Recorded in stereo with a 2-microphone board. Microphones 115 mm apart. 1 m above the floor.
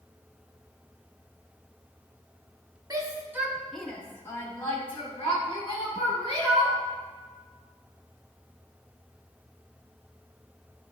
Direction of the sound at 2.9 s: 35° right (ahead or behind).